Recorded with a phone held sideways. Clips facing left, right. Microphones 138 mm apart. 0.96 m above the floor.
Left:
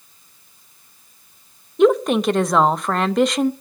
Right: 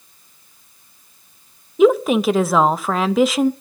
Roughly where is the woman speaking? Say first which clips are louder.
Right 1 dB; centre.